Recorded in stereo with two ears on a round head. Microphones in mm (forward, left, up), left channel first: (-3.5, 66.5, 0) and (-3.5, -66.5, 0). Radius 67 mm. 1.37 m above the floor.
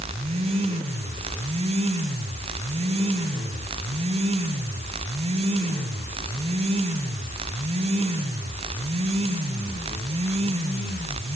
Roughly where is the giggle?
No giggle in this recording.